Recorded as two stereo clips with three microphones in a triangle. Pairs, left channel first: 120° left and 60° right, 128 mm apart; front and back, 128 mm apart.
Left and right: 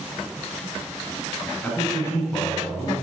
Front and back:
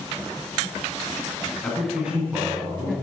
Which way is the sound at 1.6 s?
70° left.